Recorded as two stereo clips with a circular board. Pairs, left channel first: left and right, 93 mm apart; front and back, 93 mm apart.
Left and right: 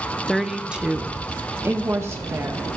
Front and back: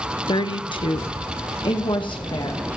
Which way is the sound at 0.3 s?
5° left.